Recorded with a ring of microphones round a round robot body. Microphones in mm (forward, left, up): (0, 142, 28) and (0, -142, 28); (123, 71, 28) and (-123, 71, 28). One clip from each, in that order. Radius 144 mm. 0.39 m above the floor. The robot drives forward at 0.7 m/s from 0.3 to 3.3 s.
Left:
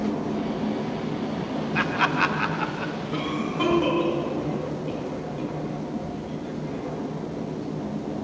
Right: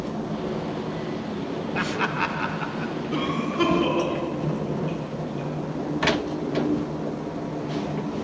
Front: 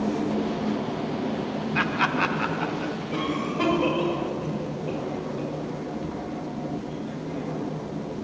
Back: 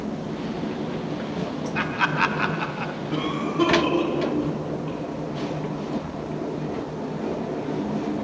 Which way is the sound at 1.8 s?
45° left.